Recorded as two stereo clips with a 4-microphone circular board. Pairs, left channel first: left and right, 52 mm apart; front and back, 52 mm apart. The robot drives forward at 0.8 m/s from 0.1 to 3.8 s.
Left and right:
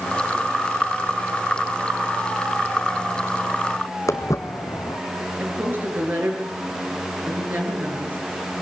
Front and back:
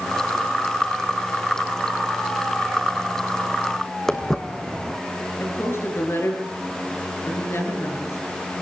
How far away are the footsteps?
About 1.8 m.